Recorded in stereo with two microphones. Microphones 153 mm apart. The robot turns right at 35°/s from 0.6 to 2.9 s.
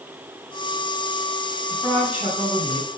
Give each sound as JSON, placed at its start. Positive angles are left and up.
{"t": 1.7, "sound": "a woman speaking", "azimuth_deg": 180, "distance_m": 2.0}